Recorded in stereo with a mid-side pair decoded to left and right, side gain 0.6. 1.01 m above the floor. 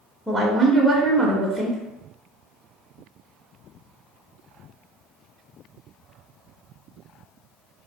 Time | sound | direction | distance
0.3 | a woman speaking | straight ahead | 0.7 m